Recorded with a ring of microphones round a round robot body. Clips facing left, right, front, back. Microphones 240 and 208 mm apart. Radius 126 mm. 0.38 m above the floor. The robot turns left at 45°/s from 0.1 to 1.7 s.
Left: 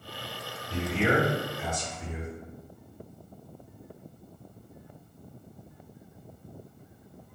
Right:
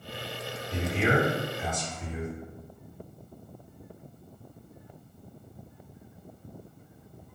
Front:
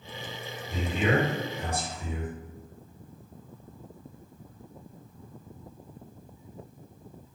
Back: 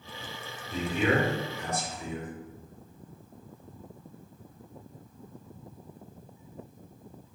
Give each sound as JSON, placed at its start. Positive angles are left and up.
{"t": 0.7, "sound": "a man speaking", "azimuth_deg": 65, "distance_m": 1.3}